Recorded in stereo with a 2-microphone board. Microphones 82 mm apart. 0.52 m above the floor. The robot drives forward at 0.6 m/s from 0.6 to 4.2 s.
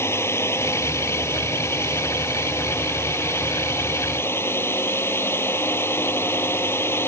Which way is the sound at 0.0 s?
35° left (ahead or behind).